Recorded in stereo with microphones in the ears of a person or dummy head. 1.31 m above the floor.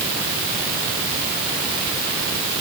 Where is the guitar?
No guitar in this recording.